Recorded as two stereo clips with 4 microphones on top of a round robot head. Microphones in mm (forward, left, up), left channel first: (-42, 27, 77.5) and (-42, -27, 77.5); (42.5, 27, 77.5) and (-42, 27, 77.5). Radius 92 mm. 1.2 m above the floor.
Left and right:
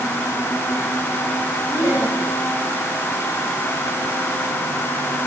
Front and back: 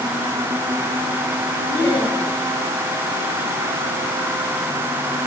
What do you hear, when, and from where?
1.7 s laughter: 60° left, 9 m